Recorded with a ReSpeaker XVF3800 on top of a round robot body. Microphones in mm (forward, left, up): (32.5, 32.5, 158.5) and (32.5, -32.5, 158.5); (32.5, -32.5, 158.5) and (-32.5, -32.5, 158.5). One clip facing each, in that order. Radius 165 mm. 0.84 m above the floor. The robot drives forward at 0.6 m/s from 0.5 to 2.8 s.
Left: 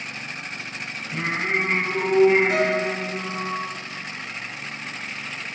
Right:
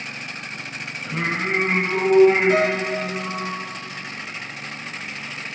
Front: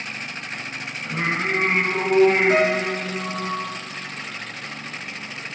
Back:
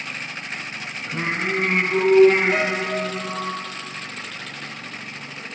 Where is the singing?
45° right, 1.4 m; by 3.5 s 100° right, 1.1 m.